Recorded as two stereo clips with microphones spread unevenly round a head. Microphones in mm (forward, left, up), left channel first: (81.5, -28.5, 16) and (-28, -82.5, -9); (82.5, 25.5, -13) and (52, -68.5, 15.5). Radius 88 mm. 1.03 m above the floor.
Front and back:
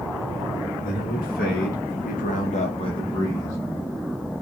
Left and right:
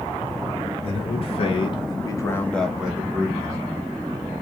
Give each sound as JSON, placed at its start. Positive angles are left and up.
{"t": 0.8, "sound": "a man speaking", "azimuth_deg": 75, "distance_m": 2.0}